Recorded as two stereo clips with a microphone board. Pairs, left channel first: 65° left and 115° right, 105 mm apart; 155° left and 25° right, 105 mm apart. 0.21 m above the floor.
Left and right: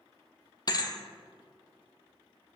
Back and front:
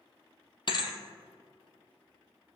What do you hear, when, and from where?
0.7 s a thud: 115° left, 0.8 m